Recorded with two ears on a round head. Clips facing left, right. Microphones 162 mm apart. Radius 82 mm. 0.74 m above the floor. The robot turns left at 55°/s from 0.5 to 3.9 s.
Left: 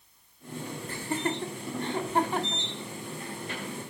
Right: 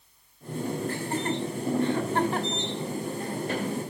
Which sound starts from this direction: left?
Laughter, at 0.9 s.